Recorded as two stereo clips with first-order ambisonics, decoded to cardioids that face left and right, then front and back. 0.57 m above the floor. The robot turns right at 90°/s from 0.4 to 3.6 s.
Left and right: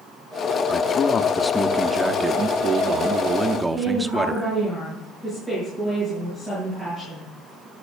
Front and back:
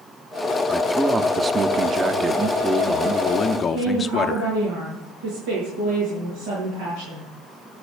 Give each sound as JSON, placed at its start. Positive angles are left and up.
{"t": 0.7, "sound": "a man speaking", "azimuth_deg": 80, "distance_m": 0.6}
{"t": 3.5, "sound": "a woman speaking", "azimuth_deg": 170, "distance_m": 8.0}